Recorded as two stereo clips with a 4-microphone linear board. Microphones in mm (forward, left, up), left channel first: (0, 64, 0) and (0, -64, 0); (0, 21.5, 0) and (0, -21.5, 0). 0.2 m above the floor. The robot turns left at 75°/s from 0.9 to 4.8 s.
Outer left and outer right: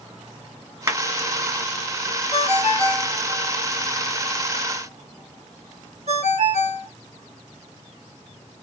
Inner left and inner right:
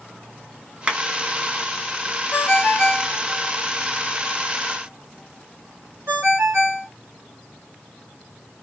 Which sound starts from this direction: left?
A ringtone, at 2.3 s.